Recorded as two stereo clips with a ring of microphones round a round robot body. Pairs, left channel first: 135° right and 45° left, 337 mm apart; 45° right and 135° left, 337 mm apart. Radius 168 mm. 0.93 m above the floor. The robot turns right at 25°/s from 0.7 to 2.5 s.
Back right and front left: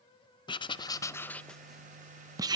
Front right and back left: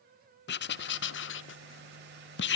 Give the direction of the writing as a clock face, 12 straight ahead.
2 o'clock.